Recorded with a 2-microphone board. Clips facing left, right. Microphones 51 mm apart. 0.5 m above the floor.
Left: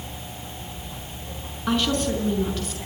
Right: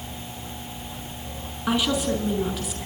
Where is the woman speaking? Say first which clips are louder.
Even; 10° right (ahead or behind), 6 m.